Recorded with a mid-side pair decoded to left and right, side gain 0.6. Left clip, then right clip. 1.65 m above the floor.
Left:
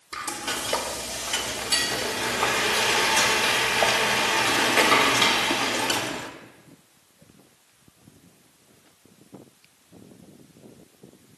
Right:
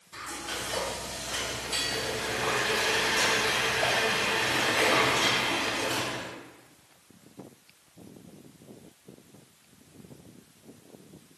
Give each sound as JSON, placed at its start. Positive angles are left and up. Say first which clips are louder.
{"t": 0.1, "sound": "frying", "louder": "left 6 dB", "azimuth_deg": 65, "distance_m": 0.6}